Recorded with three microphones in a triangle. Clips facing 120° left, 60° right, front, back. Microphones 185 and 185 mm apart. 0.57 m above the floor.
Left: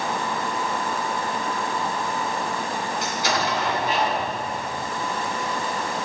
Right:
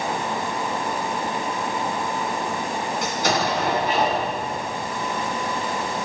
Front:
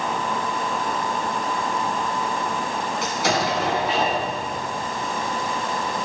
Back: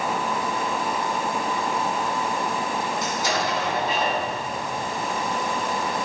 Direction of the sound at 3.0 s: 25° right.